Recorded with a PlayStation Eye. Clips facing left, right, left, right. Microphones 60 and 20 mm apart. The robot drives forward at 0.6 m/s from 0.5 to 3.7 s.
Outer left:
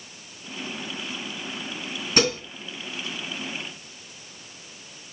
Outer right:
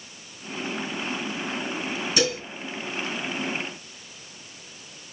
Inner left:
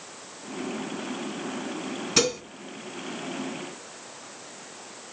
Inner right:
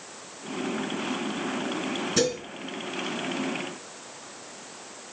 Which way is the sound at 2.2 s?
50° left (ahead or behind).